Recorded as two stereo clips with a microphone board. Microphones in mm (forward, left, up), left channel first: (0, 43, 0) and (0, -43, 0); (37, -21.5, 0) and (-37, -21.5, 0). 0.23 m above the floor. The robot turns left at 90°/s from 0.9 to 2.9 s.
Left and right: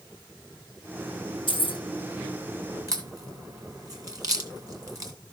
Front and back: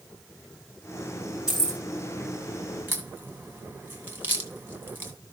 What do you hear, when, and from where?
1.5 s keys jangling: 100° left, 3.5 m; by 1.8 s 70° left, 3.5 m
2.9 s a crack: 125° right, 2 m